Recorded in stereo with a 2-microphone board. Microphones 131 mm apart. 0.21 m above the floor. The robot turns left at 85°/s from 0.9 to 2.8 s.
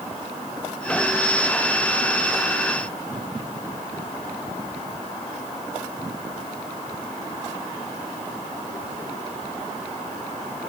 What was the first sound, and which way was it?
Only background noise.